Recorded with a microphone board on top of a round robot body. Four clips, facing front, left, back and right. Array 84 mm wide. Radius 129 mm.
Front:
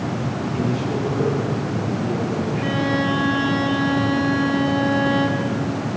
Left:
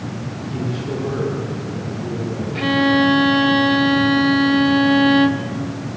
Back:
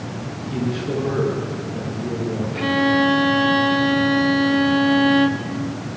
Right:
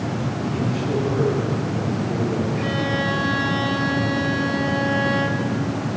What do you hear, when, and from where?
0.5 s a man speaking: 155° left, 10 m
2.5 s a violin: 115° left, 1.3 m